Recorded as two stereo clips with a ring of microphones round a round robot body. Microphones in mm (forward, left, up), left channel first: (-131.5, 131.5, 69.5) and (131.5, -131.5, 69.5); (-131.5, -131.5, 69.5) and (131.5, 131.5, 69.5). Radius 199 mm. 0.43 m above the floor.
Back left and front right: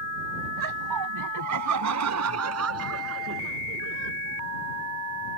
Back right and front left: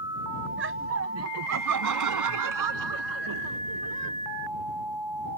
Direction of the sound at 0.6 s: 15° right.